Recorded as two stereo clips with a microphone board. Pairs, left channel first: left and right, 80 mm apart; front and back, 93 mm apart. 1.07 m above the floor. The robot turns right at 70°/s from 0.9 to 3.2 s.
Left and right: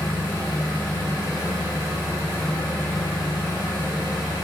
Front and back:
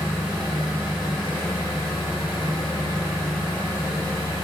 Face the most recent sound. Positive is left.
turn(degrees=60)